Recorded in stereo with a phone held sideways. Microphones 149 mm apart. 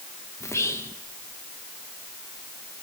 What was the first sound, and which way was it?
Whispering, 20° left (ahead or behind).